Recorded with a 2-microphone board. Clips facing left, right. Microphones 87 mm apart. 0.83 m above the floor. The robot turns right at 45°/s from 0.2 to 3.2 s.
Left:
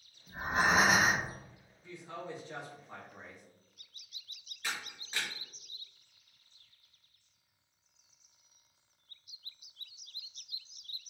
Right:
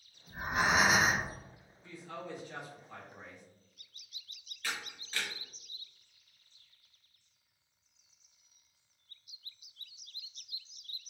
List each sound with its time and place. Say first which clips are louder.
0.3 s breathing: left 1 dB; 25° left, 0.6 m; by 1.3 s 75° left, 0.6 m
1.8 s a woman speaking: even; 30° left, 0.7 m; by 3.4 s 90° left, 0.7 m
4.6 s a camera shutter: even; 20° left (ahead or behind), 0.8 m